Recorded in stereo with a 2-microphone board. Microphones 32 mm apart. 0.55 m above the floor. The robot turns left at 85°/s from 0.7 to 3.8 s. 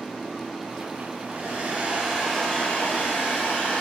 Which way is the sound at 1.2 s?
95° right.